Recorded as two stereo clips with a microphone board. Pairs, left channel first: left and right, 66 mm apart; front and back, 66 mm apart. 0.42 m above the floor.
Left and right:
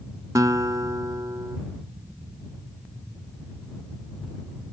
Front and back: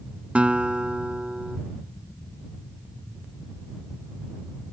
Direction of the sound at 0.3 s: 105° right.